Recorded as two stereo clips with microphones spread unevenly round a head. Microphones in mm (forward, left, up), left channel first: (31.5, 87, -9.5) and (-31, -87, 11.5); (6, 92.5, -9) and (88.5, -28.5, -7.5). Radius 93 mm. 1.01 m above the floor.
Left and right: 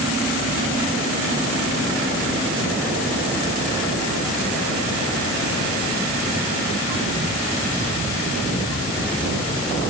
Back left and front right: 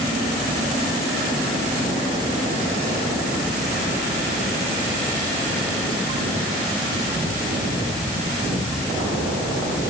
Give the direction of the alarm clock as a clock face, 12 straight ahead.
I don't hear an alarm clock.